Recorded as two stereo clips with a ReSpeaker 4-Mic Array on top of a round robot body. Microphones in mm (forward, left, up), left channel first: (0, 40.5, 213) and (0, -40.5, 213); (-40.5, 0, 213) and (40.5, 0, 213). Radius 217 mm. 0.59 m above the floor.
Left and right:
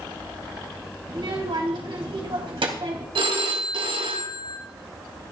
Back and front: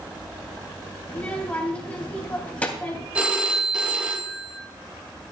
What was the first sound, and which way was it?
A child speaking, 105° right.